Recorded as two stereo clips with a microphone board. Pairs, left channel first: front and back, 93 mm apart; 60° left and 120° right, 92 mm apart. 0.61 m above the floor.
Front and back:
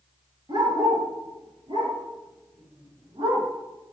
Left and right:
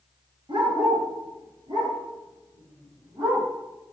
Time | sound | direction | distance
0.5 | a dog barking | 150° right | 4.5 m